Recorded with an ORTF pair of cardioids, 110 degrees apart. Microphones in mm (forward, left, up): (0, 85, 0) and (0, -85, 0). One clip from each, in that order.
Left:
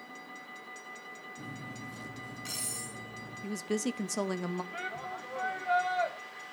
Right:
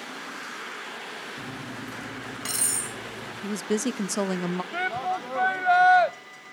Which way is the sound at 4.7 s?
55° right.